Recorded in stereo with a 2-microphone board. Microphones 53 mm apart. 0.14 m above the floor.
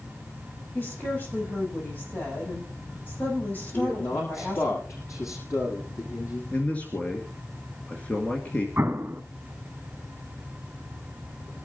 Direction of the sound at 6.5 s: 25° left (ahead or behind).